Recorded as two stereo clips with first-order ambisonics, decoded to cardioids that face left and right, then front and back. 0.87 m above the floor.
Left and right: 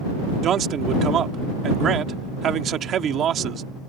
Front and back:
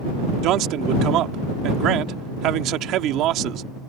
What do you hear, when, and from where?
0.4 s a man speaking: 145° right